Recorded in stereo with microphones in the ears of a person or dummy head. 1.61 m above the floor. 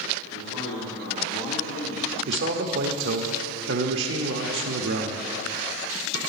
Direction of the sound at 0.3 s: 75° left (ahead or behind).